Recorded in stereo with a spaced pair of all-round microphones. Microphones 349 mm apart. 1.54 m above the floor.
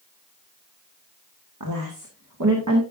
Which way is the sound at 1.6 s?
75° right (ahead or behind).